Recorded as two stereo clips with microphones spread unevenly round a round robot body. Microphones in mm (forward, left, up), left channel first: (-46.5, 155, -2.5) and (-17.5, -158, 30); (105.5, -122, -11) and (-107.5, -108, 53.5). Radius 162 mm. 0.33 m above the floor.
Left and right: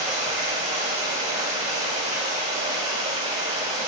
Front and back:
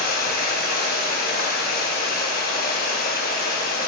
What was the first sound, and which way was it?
Running water, 15° right.